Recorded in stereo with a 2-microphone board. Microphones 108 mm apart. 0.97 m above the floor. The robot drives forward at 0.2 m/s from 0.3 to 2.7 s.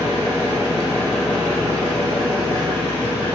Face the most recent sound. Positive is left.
turn(degrees=55)  # may be behind; listen again after turning